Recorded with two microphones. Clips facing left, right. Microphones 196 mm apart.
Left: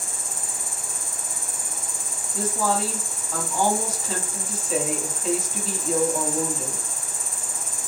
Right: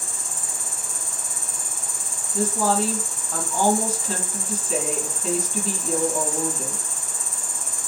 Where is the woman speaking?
Centre (ahead or behind), 1.4 m.